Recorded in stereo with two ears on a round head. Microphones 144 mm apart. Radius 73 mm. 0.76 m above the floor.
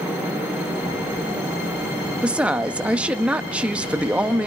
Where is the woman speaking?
5° right (ahead or behind), 0.8 m.